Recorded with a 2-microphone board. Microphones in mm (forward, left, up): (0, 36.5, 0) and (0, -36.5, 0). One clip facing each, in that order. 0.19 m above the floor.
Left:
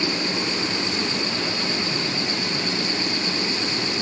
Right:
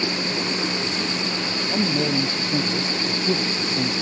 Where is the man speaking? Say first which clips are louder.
Right 5 dB; 80° right; by 3.9 s 75° right (ahead or behind).